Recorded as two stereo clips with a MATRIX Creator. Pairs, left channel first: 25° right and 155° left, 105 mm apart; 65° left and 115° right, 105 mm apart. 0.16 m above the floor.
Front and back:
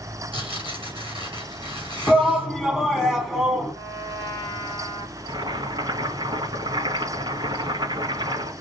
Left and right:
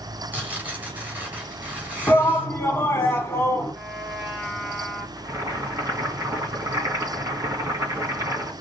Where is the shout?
70° left, 1.7 m.